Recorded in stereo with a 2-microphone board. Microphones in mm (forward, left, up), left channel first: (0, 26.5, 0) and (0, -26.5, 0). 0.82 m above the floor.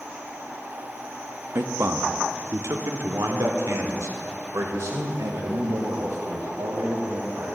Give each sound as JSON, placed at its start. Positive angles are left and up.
{"t": 1.6, "sound": "a man speaking", "side_deg": -50, "distance_m": 0.7}